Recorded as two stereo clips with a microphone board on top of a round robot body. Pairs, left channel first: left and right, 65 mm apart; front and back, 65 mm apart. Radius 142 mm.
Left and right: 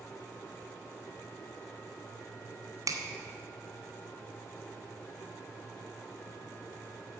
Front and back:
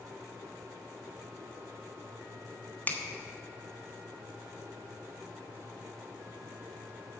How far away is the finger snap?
About 1.3 m.